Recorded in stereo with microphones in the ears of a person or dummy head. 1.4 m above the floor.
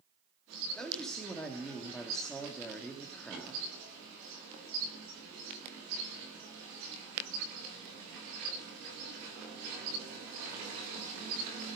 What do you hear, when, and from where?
0.8 s a man speaking: 5° left (ahead or behind), 2.5 m